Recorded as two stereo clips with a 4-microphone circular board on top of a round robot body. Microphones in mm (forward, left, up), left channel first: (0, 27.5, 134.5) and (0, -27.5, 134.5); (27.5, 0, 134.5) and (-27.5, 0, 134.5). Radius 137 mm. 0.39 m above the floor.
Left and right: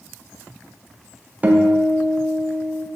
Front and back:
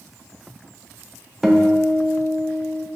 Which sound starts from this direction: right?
A guitar, at 1.4 s.